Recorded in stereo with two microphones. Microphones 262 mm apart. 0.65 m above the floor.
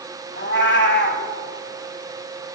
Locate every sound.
0.4 s a cat meowing: 45° left (ahead or behind), 1.2 m